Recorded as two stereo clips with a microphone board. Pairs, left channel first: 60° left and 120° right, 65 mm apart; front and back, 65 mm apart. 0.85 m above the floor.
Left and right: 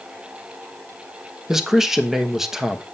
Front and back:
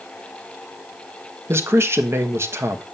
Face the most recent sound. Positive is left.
turn(degrees=160)